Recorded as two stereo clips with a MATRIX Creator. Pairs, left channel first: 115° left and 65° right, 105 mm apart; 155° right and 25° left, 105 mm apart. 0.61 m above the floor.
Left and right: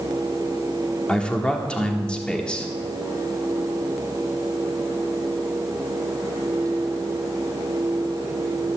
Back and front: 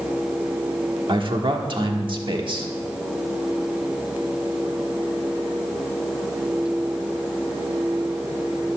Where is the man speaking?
35° left, 1.4 m.